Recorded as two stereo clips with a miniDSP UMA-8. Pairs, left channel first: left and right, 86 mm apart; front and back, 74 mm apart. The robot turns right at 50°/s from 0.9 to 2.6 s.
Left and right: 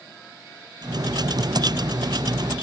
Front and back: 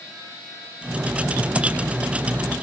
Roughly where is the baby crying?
I don't hear a baby crying.